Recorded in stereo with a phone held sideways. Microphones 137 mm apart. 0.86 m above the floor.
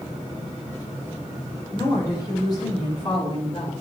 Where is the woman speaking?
25° left (ahead or behind), 4 m; by 3.7 s 45° left (ahead or behind), 4 m.